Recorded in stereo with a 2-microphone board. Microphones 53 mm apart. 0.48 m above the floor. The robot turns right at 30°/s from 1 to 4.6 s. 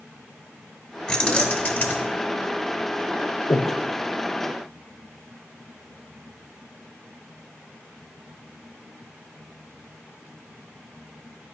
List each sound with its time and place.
1.1 s keys jangling: 15° left, 1.0 m; by 2.1 s 45° left, 1.0 m
3.5 s breathing: 80° left, 0.6 m; by 3.8 s 75° left (ahead or behind), 0.6 m